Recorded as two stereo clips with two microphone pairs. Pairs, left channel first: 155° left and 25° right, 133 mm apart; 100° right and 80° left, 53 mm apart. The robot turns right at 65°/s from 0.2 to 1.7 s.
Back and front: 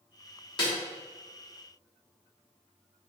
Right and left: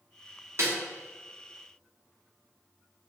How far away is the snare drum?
About 1.2 m.